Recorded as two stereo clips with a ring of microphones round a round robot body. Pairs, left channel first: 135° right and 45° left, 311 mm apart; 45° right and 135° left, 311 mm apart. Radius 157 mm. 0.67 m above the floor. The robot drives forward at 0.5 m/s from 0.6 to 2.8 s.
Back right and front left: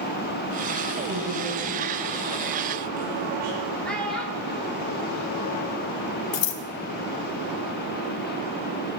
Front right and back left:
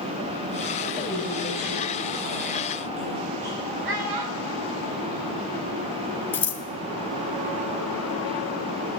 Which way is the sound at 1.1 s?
100° left.